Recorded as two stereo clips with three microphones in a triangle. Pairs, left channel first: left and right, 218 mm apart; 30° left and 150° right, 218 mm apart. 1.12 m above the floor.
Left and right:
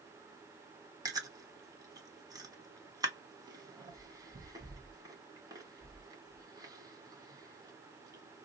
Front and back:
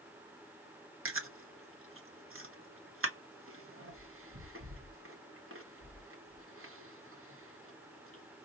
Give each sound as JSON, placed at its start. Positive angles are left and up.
{"t": 1.1, "sound": "chewing", "azimuth_deg": -165, "distance_m": 1.2}